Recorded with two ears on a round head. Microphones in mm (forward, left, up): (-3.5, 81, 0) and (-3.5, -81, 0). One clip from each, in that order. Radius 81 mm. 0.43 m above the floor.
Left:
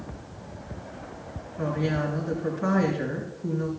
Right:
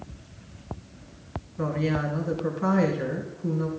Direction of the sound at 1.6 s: 40° right (ahead or behind).